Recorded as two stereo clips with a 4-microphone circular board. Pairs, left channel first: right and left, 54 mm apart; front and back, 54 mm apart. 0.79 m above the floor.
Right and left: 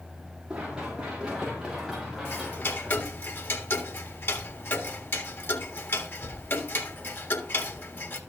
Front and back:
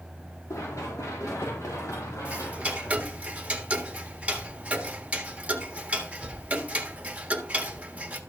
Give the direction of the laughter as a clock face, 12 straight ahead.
I don't hear laughter.